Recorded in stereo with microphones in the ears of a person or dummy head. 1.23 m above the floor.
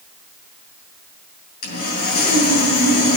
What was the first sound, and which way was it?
Sawing, 45° left (ahead or behind).